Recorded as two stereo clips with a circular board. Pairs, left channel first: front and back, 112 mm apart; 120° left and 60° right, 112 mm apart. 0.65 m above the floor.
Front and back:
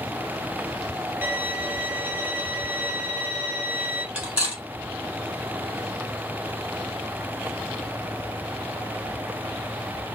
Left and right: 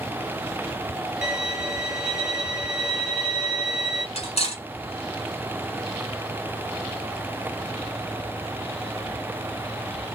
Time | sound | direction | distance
1.2 | a violin | 130° right | 1.2 m
4.2 | cutlery clinking | 105° left | 1.3 m